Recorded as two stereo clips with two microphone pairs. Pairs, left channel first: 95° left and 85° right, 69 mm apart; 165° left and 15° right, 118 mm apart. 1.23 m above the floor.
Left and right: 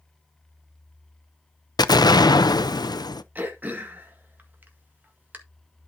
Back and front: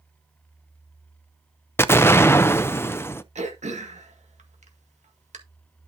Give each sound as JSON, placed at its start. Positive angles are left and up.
{"t": 1.8, "sound": "an explosion", "azimuth_deg": 95, "distance_m": 0.6}
{"t": 3.4, "sound": "throat clearing", "azimuth_deg": -25, "distance_m": 1.8}